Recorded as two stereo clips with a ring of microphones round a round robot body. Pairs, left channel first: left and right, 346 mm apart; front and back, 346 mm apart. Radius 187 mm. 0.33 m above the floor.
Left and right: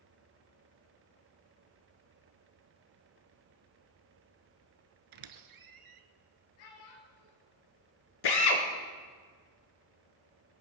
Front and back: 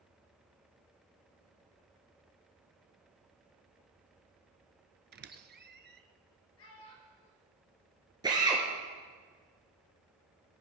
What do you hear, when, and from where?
5.1 s a squeak: 120° right, 1.2 m
6.6 s a child speaking: 60° left, 4 m
8.2 s a drill: 100° left, 2.5 m